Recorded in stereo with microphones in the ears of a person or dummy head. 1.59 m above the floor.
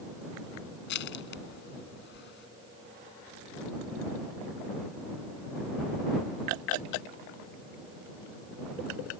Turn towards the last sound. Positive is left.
turn(degrees=65)  # may be behind; listen again after turning